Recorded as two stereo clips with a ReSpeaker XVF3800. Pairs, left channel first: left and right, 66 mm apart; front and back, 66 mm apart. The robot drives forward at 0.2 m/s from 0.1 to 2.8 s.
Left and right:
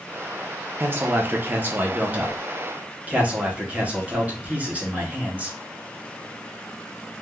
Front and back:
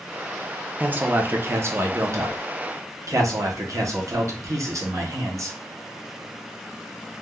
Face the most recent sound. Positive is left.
turn(degrees=-150)